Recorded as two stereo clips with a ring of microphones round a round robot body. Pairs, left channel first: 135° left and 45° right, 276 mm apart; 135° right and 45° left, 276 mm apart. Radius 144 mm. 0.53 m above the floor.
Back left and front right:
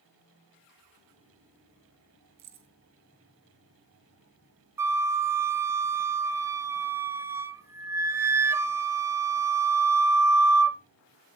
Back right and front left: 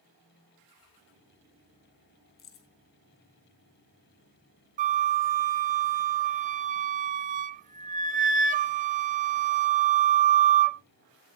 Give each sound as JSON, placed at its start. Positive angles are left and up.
{"t": 2.4, "sound": "keys jangling", "azimuth_deg": -90, "distance_m": 3.5}
{"t": 4.8, "sound": "a flute", "azimuth_deg": 25, "distance_m": 0.8}